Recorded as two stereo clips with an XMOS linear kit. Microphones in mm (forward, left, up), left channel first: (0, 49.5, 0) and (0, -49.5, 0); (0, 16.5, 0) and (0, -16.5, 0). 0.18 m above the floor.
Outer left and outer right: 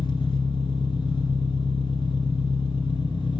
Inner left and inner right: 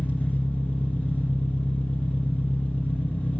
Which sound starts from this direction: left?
An engine running, at 0.0 s.